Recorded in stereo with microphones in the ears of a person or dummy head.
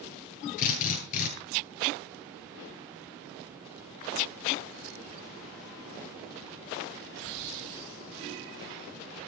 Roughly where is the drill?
Left.